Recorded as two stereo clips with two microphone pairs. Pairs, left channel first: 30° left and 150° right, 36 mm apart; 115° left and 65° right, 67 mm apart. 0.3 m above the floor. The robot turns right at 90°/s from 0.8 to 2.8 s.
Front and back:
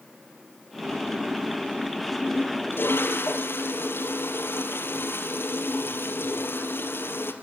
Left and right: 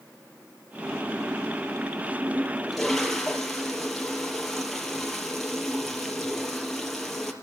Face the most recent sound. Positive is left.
turn(degrees=30)